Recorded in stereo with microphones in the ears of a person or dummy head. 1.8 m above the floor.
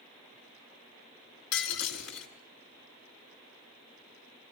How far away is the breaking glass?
About 6.5 m.